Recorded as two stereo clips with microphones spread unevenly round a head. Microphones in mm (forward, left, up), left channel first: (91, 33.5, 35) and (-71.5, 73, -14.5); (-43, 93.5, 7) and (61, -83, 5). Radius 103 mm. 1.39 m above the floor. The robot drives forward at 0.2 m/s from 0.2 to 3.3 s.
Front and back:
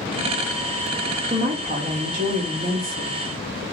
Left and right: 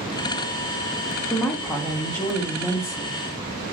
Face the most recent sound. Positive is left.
turn(degrees=-165)